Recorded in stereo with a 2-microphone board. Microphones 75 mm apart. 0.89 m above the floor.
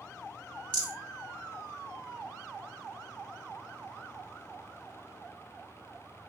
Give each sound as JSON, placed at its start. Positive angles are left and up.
{"t": 0.7, "sound": "a rattle", "side_deg": 10, "distance_m": 1.5}